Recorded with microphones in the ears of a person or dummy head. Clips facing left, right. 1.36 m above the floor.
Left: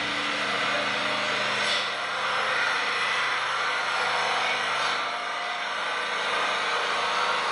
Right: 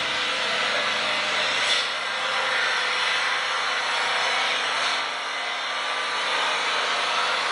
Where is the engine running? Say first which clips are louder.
Right 1 dB; 40° left (ahead or behind), 3 m.